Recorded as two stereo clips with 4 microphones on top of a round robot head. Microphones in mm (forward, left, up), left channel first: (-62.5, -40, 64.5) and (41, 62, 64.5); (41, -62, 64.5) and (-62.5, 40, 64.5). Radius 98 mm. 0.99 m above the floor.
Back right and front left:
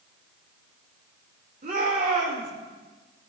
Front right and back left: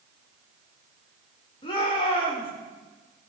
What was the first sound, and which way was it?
A shout, 10° left.